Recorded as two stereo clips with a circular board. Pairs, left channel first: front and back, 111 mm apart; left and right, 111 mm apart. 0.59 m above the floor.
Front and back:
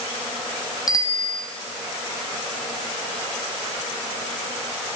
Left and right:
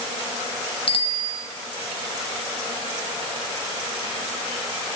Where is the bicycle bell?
55° left, 3 m.